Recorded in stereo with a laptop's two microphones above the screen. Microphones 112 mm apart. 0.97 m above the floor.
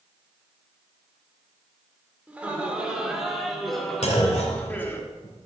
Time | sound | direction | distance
2.3 | laughter | 10° right (ahead or behind) | 2.5 m
4.0 | a clunk | 75° left (ahead or behind) | 3 m